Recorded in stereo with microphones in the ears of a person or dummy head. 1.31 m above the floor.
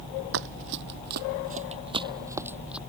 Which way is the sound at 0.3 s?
65° right (ahead or behind).